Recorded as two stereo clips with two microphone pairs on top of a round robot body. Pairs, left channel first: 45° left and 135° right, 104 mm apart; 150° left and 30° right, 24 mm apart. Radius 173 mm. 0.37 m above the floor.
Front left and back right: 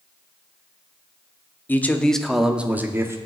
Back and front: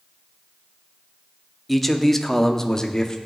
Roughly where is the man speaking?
Left.